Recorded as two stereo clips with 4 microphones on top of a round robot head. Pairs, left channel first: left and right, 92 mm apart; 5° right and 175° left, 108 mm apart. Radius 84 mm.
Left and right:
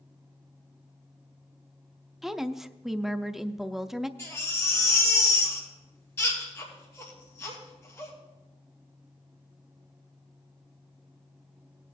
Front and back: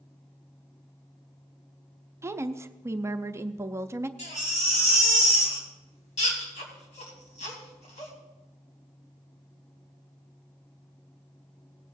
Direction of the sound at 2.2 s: 170° right.